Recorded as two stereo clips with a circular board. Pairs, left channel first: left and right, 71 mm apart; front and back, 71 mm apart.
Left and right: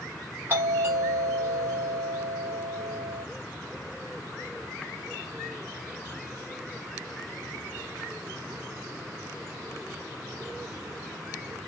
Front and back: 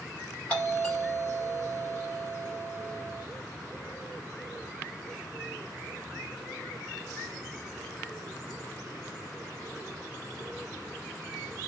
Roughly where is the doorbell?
Ahead right.